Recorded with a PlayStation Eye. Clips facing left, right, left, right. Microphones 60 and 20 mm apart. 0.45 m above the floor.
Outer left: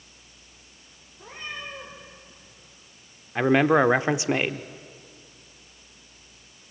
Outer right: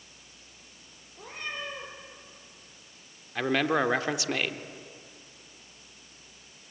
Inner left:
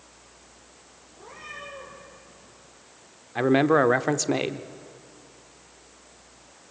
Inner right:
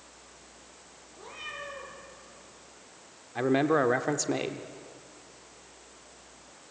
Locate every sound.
1.1 s a cat meowing: 60° right (ahead or behind), 7.5 m
3.4 s a man speaking: 25° left (ahead or behind), 0.8 m